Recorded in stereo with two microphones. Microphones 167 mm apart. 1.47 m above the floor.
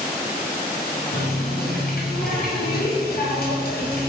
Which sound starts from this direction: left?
A running tap, at 1.1 s.